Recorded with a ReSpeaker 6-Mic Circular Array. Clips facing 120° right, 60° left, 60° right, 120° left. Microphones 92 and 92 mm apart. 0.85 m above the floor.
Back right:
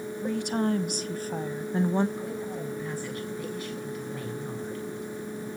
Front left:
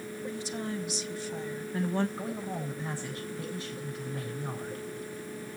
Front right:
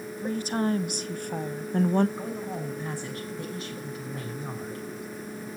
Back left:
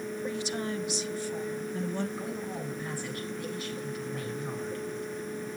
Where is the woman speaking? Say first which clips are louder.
Back right 10 dB, front right 8 dB; 105° right, 1.4 m; by 2.1 s 50° right, 0.8 m.